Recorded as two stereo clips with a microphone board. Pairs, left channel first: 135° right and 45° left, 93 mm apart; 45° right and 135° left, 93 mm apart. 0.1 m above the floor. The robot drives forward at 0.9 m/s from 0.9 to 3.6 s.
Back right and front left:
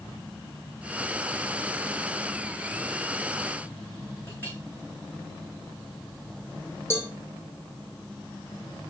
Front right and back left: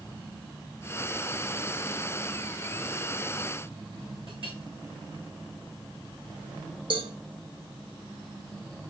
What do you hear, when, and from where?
4.3 s a clink: 160° left, 5 m
6.9 s a cowbell: 160° left, 2.5 m